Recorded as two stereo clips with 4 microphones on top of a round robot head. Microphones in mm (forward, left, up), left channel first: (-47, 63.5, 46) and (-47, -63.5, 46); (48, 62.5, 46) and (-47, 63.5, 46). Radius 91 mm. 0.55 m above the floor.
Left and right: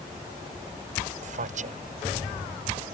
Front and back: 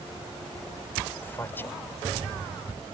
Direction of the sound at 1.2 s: 70° right.